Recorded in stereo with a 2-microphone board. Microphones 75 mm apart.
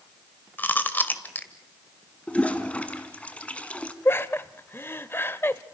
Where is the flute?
No flute in this recording.